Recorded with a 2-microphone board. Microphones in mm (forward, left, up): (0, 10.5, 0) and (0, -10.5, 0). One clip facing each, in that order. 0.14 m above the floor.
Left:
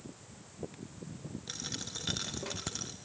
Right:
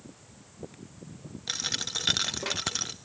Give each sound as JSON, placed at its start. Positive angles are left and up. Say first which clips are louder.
{"t": 1.5, "sound": "a dropped coin", "louder": "right 10 dB", "side_deg": -45, "distance_m": 0.9}